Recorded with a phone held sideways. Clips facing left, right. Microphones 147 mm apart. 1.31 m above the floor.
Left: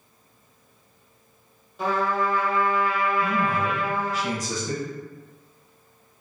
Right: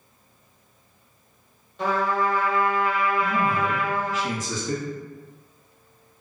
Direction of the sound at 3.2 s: 40° left (ahead or behind).